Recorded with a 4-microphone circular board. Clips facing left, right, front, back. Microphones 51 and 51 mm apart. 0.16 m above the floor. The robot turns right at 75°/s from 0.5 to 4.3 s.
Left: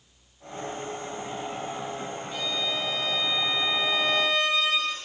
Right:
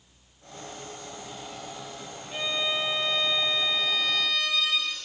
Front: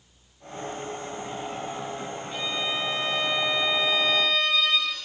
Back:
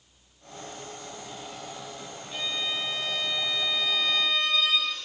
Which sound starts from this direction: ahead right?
A violin, at 2.3 s.